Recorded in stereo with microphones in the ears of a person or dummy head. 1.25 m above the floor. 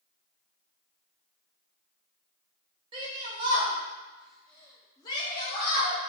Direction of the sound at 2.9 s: 25° right (ahead or behind).